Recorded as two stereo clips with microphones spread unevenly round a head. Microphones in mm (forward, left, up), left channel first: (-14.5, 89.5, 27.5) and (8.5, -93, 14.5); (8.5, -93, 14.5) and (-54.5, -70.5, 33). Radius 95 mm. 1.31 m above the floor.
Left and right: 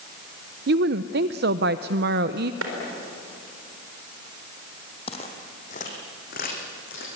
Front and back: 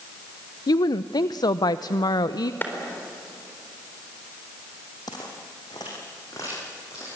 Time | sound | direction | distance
0.7 | a woman speaking | 45° right | 0.5 m
2.6 | a clap | 80° right | 4 m
5.1 | footsteps | 45° left | 2.5 m